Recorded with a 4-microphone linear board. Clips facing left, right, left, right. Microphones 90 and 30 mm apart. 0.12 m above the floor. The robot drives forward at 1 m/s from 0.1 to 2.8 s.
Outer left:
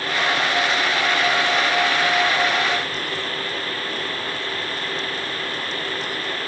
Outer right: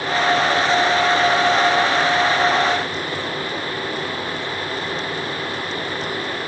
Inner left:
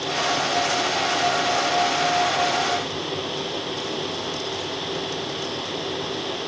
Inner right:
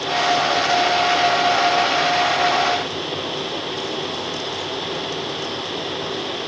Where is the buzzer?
No buzzer in this recording.